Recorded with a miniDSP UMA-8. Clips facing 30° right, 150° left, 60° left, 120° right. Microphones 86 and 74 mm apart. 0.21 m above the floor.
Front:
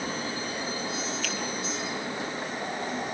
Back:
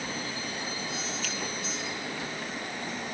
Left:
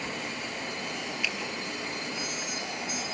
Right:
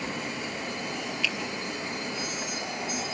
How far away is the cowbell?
I don't hear a cowbell.